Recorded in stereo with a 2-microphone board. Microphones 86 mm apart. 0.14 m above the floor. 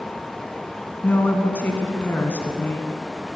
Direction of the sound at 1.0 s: 20° left (ahead or behind).